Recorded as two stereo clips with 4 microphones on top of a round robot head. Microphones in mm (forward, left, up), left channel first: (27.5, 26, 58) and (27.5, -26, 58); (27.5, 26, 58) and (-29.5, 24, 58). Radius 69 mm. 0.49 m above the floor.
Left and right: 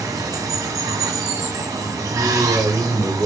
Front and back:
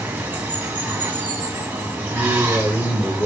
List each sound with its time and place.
0.0 s running water: 115° right, 1.2 m
2.1 s a man speaking: 65° right, 4 m